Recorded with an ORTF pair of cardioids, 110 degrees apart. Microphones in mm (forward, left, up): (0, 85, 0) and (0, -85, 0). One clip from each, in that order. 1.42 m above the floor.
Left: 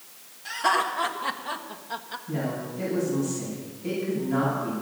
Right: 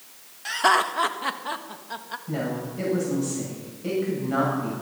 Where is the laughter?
45° right, 1.5 m; by 2.2 s 5° right, 1.7 m.